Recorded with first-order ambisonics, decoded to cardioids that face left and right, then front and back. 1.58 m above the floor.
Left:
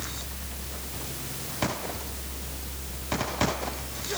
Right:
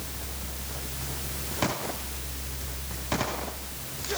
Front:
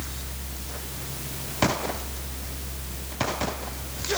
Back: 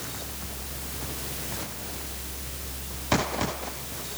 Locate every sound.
Only background noise.